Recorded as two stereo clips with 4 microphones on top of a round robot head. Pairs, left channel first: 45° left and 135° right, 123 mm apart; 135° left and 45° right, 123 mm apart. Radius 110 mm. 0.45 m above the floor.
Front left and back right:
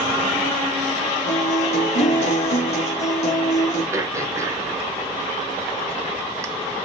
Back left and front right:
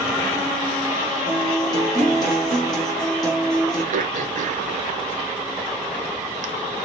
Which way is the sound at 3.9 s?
65° right.